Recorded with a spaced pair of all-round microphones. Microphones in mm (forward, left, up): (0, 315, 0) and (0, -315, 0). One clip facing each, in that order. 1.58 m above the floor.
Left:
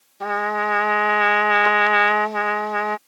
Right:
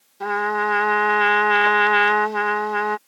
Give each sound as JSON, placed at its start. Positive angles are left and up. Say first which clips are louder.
{"t": 0.2, "sound": "a trumpet", "louder": "right 2 dB", "side_deg": 5}